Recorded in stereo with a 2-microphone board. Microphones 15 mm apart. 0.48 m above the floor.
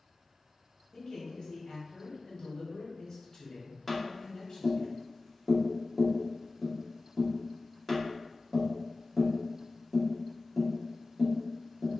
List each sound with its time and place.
0.9 s a man speaking: 50° left (ahead or behind), 1.1 m
3.9 s tapping: 5° left (ahead or behind), 1.0 m